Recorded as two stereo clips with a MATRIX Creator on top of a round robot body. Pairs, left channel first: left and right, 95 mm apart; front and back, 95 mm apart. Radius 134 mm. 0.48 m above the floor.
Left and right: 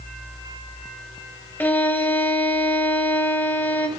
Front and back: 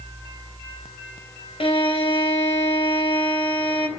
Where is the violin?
20° left, 3.5 m.